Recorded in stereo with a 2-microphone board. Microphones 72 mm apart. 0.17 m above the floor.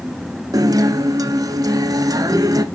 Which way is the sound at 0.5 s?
60° right (ahead or behind).